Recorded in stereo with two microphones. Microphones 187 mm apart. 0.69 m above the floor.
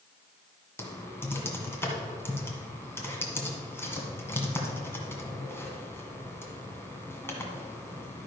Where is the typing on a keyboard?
10° left (ahead or behind), 1.7 m.